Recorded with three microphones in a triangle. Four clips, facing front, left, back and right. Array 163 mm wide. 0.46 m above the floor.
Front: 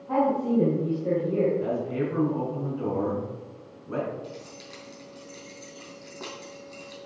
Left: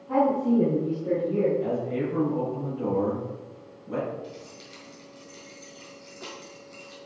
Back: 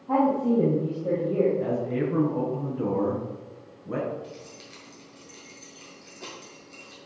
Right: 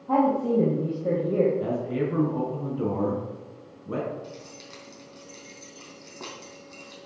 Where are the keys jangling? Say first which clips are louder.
Even, front 2 dB; 65° right, 4 m.